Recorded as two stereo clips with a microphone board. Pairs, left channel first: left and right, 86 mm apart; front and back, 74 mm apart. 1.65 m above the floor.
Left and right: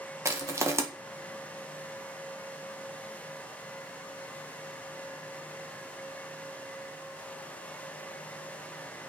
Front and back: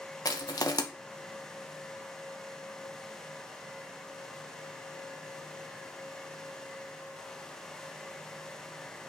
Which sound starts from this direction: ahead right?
Crushing, at 0.2 s.